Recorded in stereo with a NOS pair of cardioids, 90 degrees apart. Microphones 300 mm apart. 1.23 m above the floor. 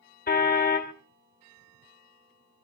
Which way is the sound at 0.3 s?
30° left.